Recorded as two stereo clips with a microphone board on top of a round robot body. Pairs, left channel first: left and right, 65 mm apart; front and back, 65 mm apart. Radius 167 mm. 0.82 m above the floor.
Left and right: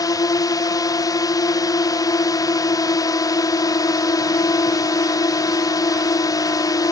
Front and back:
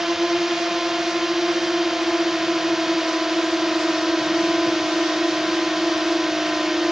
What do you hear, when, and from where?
0.0 s a drone: 95° left